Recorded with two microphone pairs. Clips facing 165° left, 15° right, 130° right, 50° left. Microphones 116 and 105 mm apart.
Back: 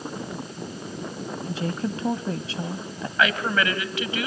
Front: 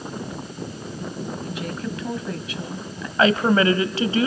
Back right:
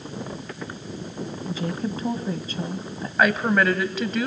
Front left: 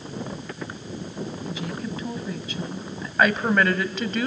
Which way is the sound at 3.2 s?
40° right.